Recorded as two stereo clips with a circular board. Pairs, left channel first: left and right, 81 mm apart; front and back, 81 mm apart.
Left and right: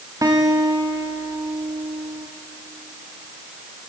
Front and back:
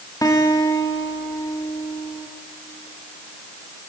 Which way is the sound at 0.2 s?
45° right.